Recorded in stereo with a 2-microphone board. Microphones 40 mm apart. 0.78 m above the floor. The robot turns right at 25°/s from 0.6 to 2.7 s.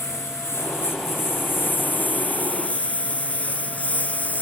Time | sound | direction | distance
0.0 | a lawn mower | 85° left | ?